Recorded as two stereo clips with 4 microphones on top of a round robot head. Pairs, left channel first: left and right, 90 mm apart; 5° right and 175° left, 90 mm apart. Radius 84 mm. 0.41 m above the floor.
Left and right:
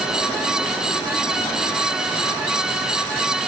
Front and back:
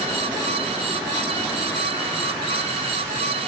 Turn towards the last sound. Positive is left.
No sound to turn to.